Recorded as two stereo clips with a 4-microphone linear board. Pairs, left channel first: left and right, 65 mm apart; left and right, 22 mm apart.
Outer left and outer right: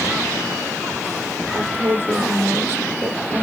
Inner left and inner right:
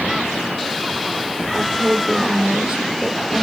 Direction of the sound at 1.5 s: 30° right (ahead or behind).